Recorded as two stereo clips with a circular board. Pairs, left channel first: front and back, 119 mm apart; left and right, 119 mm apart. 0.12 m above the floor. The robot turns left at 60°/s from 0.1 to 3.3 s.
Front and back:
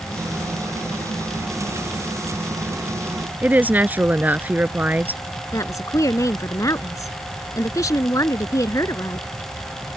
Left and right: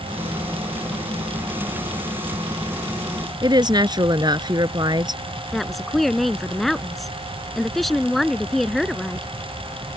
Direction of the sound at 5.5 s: 5° left.